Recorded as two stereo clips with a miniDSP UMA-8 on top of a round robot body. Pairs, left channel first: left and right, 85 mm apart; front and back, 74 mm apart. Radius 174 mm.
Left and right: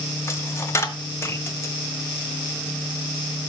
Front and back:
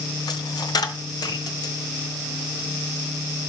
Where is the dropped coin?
30° left, 1.3 m.